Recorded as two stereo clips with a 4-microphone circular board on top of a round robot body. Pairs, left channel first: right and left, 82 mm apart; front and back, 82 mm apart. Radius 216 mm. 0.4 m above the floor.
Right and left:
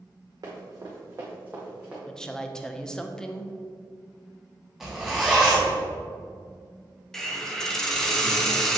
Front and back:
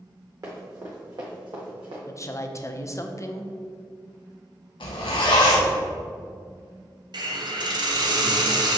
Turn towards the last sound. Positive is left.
turn(degrees=-175)